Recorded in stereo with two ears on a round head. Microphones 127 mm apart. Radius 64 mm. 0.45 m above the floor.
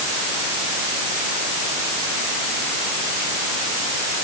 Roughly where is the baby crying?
No baby crying in this recording.